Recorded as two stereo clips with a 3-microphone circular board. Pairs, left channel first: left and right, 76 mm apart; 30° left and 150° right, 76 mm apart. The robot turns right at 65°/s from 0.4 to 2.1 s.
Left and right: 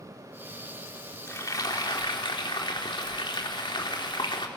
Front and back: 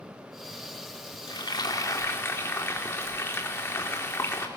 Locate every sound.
1.3 s frying: 35° left, 4 m; by 4.5 s 90° left, 4 m